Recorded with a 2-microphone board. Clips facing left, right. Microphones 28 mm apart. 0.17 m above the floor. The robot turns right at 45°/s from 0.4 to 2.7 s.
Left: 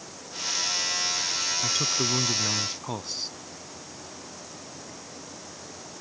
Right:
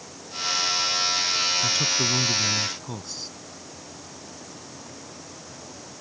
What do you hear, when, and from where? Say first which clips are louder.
1.6 s a man speaking: right 3 dB; 5° left (ahead or behind); by 3.4 s 25° left (ahead or behind)